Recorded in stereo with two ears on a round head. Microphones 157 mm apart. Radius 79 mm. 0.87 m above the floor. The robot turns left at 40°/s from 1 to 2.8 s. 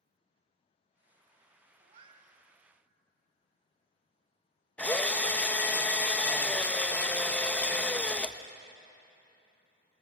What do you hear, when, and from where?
1.8 s a cat meowing: 45° right (ahead or behind), 1.8 m; by 2.4 s 20° right (ahead or behind), 1.8 m
4.8 s a drill: 10° left (ahead or behind), 0.7 m